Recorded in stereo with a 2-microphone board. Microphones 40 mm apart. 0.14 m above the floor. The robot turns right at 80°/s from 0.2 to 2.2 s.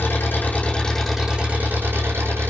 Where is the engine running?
115° left, 6 m; by 2.5 s 85° right, 6 m.